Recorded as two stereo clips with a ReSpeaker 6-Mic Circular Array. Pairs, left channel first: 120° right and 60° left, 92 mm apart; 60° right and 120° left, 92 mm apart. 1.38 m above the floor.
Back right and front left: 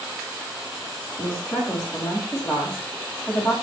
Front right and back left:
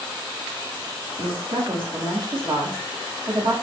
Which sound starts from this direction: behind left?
A woman speaking, at 1.2 s.